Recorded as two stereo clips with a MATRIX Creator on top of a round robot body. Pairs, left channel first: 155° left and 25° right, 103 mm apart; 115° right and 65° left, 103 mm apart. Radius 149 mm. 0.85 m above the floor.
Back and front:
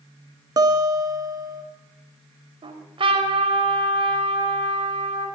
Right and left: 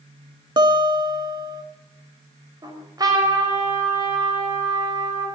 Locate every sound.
0.6 s a guitar: 25° left, 2.5 m
2.6 s a trumpet: 15° left, 5 m